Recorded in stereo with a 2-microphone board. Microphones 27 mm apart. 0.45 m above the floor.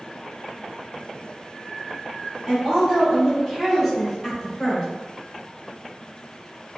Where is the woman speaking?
15° right (ahead or behind), 1.1 m; by 4.9 s 20° left (ahead or behind), 1.0 m.